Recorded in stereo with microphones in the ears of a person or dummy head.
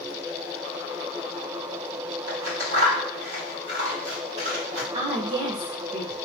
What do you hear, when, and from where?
2.3 s scissors: 65° right (ahead or behind), 2.5 m
4.9 s a woman speaking: 30° right (ahead or behind), 1.5 m